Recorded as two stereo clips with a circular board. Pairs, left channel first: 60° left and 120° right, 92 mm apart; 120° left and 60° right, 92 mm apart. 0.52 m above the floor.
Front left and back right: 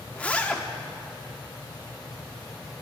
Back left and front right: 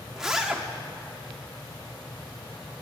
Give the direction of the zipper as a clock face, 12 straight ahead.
12 o'clock.